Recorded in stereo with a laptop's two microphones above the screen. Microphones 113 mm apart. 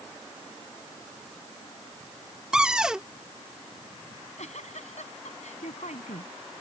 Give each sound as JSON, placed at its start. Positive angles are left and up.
{"t": 2.5, "sound": "a cupboard door", "side_deg": -5}
{"t": 4.1, "sound": "a giggle", "side_deg": 85}